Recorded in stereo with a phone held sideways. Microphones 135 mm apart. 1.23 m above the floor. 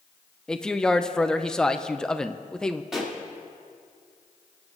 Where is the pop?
5° right (ahead or behind), 3 m.